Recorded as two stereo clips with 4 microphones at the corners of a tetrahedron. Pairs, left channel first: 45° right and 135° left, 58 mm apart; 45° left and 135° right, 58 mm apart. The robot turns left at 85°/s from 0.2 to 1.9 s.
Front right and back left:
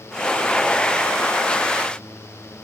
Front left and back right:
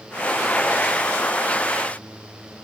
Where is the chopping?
No chopping in this recording.